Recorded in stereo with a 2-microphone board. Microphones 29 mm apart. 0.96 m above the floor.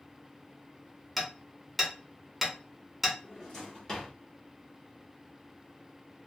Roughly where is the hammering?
Centre.